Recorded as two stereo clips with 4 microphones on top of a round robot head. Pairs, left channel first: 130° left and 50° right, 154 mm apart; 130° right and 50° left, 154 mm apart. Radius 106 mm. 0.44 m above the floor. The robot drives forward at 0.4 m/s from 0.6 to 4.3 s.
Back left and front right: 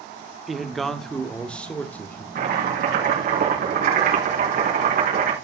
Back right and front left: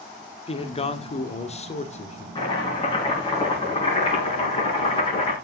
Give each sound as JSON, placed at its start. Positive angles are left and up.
{"t": 0.5, "sound": "a man speaking", "azimuth_deg": -140, "distance_m": 1.7}
{"t": 2.4, "sound": "chopping", "azimuth_deg": -70, "distance_m": 6.0}